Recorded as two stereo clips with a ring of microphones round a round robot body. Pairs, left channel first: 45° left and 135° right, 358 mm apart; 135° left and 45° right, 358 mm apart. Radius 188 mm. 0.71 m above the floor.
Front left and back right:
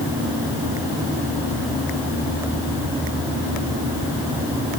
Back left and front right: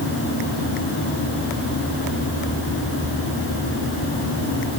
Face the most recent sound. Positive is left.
No sound to turn to.